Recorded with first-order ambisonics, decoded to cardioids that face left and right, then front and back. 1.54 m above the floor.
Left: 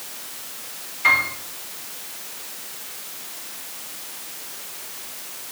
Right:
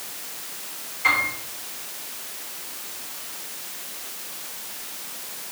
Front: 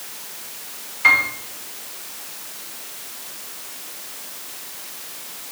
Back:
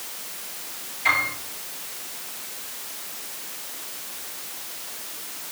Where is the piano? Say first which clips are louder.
Left 3 dB, front 6 dB; 10° left, 4.5 m.